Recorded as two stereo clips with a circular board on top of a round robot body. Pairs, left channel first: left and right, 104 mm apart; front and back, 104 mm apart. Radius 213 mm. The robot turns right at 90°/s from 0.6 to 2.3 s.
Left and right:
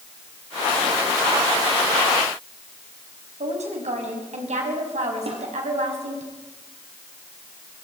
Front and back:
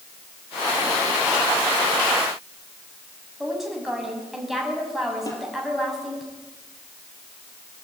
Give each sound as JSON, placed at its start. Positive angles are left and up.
{"t": 3.4, "sound": "a woman speaking", "azimuth_deg": -90, "distance_m": 6.5}
{"t": 5.3, "sound": "a snare drum", "azimuth_deg": -55, "distance_m": 4.5}